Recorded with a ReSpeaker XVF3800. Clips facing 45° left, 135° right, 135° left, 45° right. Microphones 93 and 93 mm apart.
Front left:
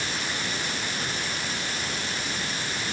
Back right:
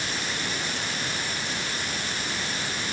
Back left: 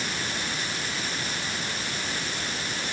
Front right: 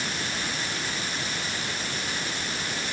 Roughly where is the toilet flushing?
I don't hear a toilet flushing.